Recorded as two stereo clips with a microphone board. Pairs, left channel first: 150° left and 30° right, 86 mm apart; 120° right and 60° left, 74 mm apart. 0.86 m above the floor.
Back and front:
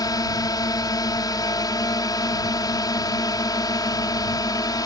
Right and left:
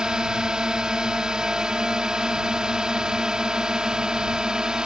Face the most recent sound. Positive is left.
turn(degrees=135)